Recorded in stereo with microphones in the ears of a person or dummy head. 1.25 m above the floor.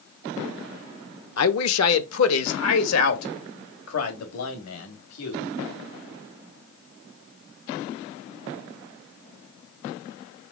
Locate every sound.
1.4 s a man speaking: 75° left (ahead or behind), 1.1 m; by 5.5 s 85° left, 4 m